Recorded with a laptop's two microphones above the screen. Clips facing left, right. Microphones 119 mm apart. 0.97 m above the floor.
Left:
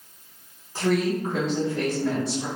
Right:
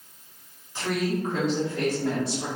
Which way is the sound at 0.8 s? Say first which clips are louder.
Left 4 dB; 40° left (ahead or behind).